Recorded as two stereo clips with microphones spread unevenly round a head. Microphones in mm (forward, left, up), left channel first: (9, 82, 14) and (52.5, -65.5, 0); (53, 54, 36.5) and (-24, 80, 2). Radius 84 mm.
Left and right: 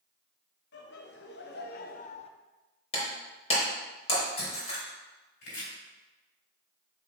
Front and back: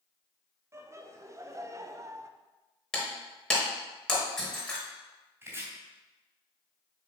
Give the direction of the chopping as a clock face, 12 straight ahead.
9 o'clock.